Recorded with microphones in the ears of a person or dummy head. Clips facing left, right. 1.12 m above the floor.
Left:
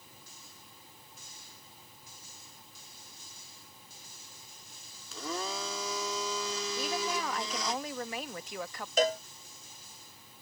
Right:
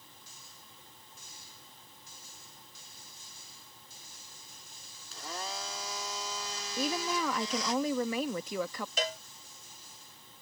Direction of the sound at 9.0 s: 40° left (ahead or behind).